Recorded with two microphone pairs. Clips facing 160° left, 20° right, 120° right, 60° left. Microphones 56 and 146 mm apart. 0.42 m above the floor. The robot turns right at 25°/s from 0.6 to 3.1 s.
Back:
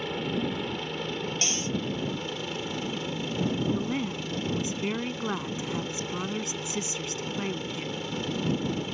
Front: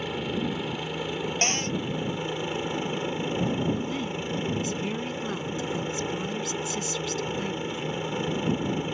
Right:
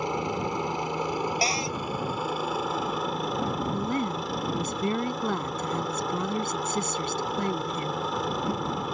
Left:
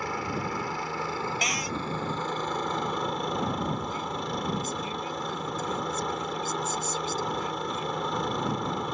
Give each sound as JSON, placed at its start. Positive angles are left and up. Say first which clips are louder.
{"t": 0.0, "sound": "a helicopter", "louder": "even, right 3 dB", "azimuth_deg": -100}
{"t": 1.4, "sound": "a cupboard door", "louder": "front 5 dB, right 4 dB", "azimuth_deg": -65}
{"t": 3.7, "sound": "a woman speaking", "louder": "even, right 5 dB", "azimuth_deg": -140}